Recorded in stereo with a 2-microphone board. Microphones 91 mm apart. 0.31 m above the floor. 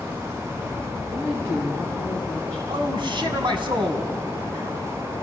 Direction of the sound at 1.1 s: 25° right (ahead or behind).